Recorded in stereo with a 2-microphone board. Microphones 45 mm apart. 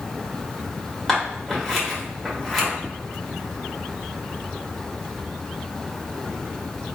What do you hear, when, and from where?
1.1 s scissors: centre (ahead or behind), 1.4 m